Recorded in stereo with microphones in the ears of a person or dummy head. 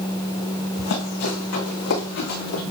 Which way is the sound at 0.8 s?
75° left (ahead or behind).